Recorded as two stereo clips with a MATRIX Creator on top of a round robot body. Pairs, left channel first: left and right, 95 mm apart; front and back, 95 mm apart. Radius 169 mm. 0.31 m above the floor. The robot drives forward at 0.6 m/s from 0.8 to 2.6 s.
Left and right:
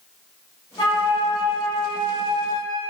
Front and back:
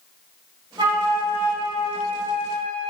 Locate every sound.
0.8 s a flute: 135° left, 0.8 m; by 2.9 s 160° left, 1.7 m